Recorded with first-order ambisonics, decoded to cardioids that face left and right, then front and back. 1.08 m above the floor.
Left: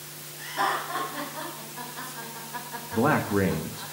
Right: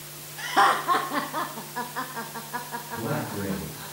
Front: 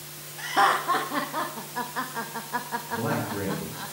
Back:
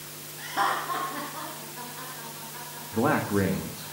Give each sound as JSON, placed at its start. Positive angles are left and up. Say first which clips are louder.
{"t": 0.4, "sound": "laughter", "louder": "right 7 dB, front 5 dB", "azimuth_deg": -70, "distance_m": 1.7}
{"t": 2.9, "sound": "a man speaking", "louder": "left 9 dB, back 6 dB", "azimuth_deg": 125, "distance_m": 1.5}